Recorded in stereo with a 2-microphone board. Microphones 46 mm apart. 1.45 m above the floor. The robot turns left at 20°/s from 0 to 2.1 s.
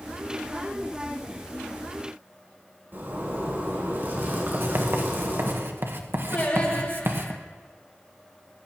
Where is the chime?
I don't hear a chime.